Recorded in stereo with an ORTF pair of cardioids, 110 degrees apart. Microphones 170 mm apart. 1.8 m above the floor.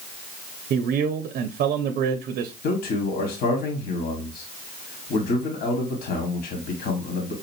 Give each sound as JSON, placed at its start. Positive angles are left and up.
{"t": 0.7, "sound": "a man speaking", "azimuth_deg": -65, "distance_m": 0.6}
{"t": 2.6, "sound": "a man speaking", "azimuth_deg": 65, "distance_m": 1.4}